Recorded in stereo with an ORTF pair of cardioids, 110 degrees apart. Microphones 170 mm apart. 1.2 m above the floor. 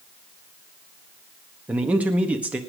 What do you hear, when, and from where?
1.7 s a man speaking: 10° right, 1.5 m